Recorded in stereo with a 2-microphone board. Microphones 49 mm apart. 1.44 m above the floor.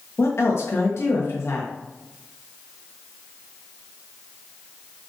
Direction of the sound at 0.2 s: 65° left (ahead or behind).